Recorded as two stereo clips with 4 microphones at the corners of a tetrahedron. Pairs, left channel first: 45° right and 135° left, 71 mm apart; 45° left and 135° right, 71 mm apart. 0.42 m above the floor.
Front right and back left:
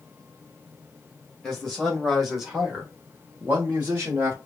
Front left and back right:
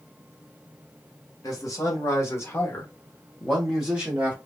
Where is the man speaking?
40° left, 1.6 m; by 4.4 s 165° left, 1.2 m.